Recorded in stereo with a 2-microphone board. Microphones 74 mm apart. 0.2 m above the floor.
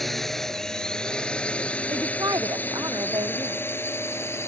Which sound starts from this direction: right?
A woman speaking, at 1.9 s.